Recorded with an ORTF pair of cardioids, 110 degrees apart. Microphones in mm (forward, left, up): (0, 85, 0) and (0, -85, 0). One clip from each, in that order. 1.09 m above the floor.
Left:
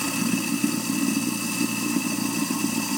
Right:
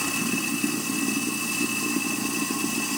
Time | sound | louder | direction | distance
0.0 | running water | even | 10° left | 1.2 m